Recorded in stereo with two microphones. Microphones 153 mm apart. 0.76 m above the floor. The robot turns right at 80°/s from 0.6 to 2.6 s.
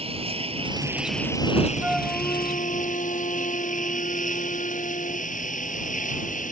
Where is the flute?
15° right; by 5.3 s 50° left.